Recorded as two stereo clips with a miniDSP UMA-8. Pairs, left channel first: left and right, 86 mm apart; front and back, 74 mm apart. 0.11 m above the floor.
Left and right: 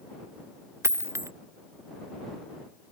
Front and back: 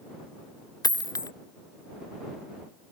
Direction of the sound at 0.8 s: 35° right.